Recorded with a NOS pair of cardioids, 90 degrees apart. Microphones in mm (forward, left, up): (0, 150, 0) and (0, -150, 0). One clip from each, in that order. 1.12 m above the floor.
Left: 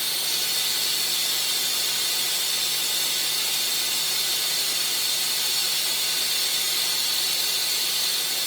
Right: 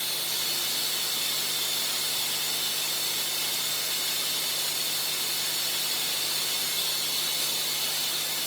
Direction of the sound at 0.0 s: 50° left.